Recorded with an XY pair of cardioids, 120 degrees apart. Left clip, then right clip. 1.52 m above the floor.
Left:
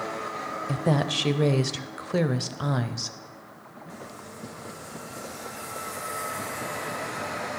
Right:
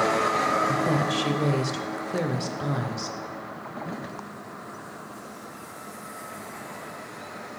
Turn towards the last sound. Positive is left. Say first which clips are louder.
# right 2 dB
turn(degrees=30)